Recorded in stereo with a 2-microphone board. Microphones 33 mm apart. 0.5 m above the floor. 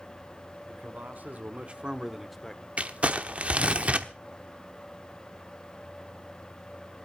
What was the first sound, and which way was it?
A man speaking, 65° right (ahead or behind).